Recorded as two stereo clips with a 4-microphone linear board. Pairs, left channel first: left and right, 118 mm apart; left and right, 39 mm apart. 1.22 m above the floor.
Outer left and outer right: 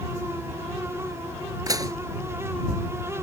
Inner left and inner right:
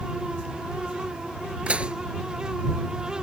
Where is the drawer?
I don't hear a drawer.